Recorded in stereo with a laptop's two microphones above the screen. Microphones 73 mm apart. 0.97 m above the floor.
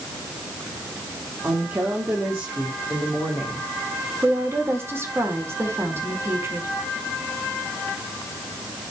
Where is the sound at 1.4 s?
30° right (ahead or behind), 3 m.